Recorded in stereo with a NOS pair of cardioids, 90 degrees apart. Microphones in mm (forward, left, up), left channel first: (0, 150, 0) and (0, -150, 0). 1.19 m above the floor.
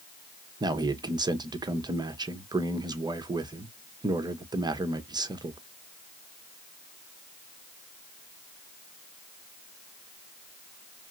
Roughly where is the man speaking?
Ahead.